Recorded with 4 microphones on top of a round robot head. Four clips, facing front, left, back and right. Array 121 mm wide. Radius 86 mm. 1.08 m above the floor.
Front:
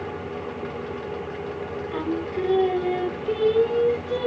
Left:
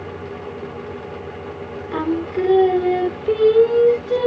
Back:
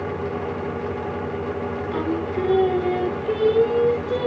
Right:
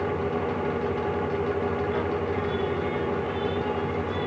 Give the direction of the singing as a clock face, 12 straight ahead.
9 o'clock.